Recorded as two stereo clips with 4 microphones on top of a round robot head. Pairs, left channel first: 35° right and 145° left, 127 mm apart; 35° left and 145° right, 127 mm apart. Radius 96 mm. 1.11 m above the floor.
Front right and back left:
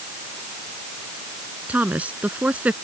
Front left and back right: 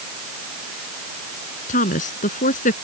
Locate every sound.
1.7 s a woman speaking: 65° left